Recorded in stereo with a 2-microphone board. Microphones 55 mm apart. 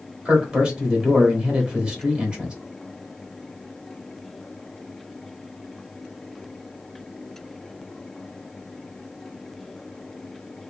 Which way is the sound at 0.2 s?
20° right (ahead or behind).